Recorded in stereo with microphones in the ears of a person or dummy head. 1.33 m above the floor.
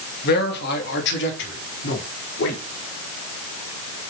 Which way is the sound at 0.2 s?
55° left (ahead or behind).